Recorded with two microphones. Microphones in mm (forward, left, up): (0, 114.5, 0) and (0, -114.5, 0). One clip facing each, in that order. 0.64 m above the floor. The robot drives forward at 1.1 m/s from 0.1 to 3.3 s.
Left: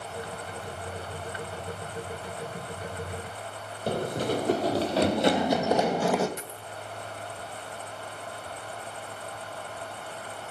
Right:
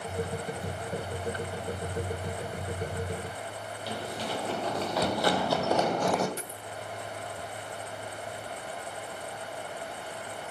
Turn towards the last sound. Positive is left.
turn(degrees=-35)  # may be behind; listen again after turning